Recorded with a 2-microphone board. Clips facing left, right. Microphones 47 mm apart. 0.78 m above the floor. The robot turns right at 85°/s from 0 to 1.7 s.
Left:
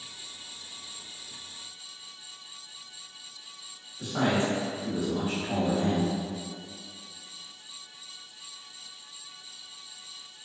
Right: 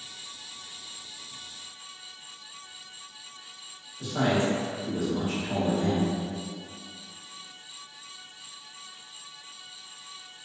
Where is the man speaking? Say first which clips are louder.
Right 1 dB; 25° left (ahead or behind), 1.3 m.